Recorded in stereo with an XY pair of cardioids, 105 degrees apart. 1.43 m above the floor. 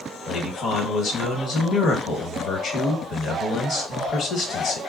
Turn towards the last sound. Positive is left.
turn(degrees=60)